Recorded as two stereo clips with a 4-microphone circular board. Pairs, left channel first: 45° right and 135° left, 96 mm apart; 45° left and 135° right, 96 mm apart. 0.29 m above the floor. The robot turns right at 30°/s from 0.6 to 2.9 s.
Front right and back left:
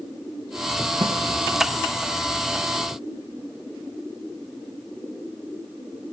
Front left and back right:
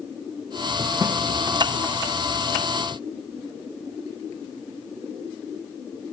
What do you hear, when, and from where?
1.0 s a snare drum: 160° left, 1.3 m